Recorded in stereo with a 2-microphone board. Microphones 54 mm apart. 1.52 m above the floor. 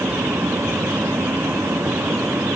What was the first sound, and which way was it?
Only background noise.